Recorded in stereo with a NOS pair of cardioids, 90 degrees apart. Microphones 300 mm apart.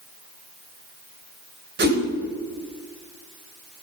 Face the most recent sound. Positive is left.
turn(degrees=-35)